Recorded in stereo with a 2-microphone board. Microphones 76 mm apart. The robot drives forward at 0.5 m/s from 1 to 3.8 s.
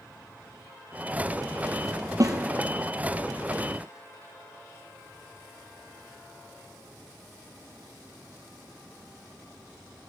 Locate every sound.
2.2 s a snare drum: 50° right (ahead or behind), 1.4 m